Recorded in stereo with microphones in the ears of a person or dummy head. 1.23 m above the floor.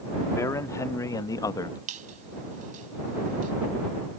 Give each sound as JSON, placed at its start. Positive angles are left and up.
{"t": 0.3, "sound": "a man speaking", "side_deg": 20}
{"t": 1.9, "sound": "a squeak", "side_deg": -50}